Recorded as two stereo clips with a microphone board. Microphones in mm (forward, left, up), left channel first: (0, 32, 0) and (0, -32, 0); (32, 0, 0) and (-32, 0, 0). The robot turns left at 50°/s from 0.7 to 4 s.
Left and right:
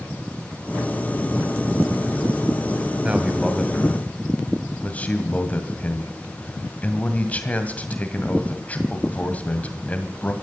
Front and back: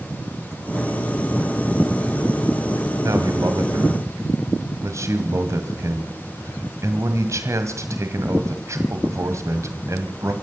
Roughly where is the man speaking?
Behind.